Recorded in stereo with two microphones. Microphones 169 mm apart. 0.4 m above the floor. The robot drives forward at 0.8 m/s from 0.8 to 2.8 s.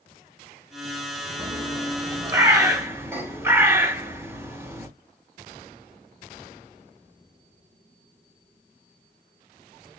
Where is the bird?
30° right (ahead or behind), 0.9 m; by 4.9 s 15° right (ahead or behind), 1.8 m.